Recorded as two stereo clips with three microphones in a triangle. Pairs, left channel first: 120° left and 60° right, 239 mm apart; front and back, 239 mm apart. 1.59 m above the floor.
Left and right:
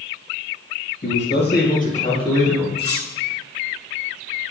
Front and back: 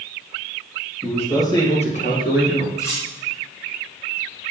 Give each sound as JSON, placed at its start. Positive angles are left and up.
{"t": 1.0, "sound": "a man speaking", "azimuth_deg": 80, "distance_m": 2.5}
{"t": 2.8, "sound": "cutlery clinking", "azimuth_deg": 75, "distance_m": 3.0}